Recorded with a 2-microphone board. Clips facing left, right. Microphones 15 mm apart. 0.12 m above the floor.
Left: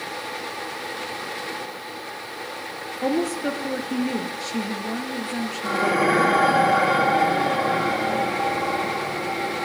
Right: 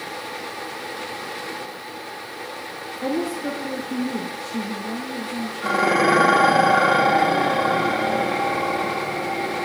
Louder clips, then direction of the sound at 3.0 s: Left 2 dB; 50° left (ahead or behind).